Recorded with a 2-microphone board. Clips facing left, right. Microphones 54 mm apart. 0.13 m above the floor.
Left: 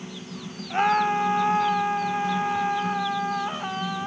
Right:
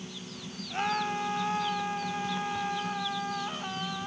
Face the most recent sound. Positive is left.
turn(degrees=25)  # may be behind; listen again after turning